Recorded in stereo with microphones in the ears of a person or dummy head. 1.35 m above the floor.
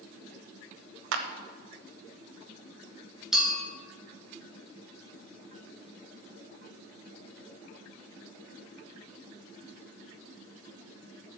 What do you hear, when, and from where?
1.1 s a clap: 75° right (ahead or behind), 1.1 m
3.3 s a clink: 5° right (ahead or behind), 3.5 m